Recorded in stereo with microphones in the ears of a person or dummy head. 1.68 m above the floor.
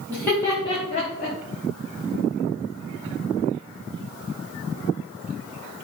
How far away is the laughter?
About 1.3 m.